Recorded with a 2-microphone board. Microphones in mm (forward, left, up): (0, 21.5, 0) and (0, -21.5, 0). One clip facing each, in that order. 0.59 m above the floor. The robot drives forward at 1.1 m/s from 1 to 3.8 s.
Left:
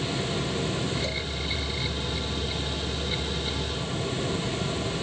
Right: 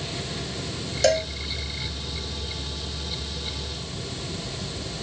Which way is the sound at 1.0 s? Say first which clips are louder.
Right 11 dB; 85° right.